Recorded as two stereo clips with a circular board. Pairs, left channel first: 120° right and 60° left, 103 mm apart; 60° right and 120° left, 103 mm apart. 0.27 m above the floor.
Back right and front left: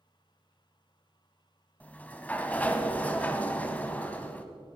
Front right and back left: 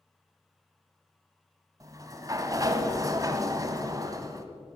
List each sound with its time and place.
1.8 s a sliding door: 170° left, 1.2 m